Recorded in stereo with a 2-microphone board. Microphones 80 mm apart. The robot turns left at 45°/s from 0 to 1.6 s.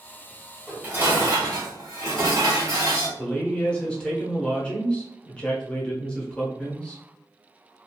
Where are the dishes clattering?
15° right, 1.4 m; by 3.1 s 55° right, 1.4 m.